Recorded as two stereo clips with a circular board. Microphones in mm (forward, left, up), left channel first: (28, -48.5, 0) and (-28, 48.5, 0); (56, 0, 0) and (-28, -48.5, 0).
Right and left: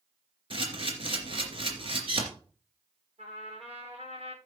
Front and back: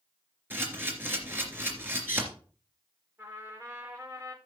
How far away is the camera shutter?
About 3 m.